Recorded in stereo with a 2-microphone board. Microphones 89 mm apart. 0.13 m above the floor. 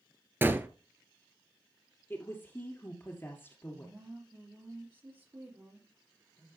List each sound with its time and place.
0.4 s a gunshot: 25° right (ahead or behind), 0.9 m
2.1 s a woman speaking: 25° left (ahead or behind), 2 m
3.7 s a woman speaking: 30° right (ahead or behind), 3.5 m